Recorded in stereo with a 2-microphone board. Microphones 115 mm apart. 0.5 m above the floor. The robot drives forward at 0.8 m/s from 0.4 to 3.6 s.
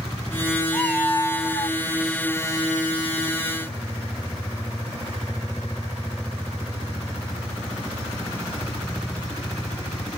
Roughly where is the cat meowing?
Centre.